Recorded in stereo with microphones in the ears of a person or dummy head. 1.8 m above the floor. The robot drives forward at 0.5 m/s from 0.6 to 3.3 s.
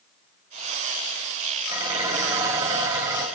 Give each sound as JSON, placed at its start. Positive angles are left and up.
{"t": 1.7, "sound": "dishes clattering", "side_deg": -15, "distance_m": 6.0}